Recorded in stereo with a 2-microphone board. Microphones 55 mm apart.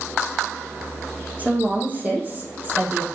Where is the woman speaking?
25° right (ahead or behind), 5 m; by 3.0 s 40° right (ahead or behind), 3 m.